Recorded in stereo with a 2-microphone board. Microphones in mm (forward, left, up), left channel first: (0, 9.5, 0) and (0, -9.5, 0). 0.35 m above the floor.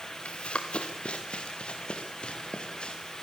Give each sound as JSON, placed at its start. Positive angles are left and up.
{"t": 0.2, "sound": "running footsteps", "side_deg": 65, "distance_m": 3.0}